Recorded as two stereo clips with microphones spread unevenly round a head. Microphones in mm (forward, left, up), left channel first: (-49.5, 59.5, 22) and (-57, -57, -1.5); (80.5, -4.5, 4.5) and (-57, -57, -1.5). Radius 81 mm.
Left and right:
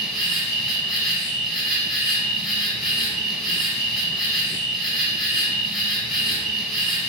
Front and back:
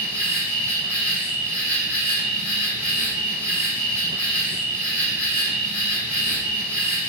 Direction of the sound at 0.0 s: 150° left.